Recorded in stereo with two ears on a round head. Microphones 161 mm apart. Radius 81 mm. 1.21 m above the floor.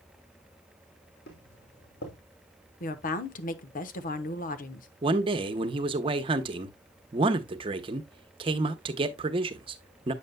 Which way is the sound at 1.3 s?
65° left (ahead or behind).